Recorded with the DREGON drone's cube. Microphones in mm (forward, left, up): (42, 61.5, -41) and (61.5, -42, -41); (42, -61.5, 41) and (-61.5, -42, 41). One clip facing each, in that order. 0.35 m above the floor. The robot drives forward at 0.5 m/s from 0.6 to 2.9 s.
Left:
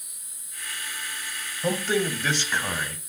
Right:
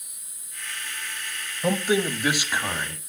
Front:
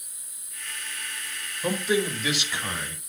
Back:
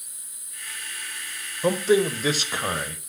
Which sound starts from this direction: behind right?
A man speaking, at 1.6 s.